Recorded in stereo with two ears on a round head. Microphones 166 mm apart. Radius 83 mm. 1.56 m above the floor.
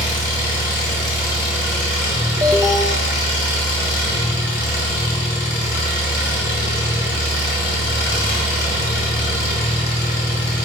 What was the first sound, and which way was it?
An engine running, 40° left (ahead or behind).